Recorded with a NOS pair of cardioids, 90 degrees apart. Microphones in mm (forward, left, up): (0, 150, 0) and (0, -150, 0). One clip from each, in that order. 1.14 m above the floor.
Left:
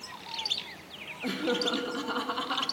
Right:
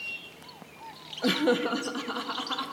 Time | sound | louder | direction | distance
1.2 | laughter | right 4 dB | 50° right | 0.7 m